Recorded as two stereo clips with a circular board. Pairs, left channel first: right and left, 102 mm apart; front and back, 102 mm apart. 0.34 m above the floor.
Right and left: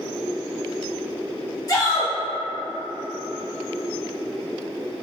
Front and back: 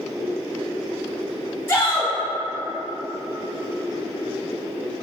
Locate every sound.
1.7 s a shout: 60° right, 1.2 m